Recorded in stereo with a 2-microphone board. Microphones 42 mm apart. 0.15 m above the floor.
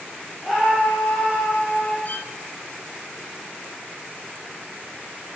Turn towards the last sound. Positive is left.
turn(degrees=50)  # may be behind; listen again after turning